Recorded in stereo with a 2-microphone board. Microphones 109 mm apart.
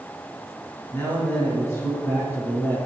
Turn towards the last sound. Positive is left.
turn(degrees=25)  # may be behind; listen again after turning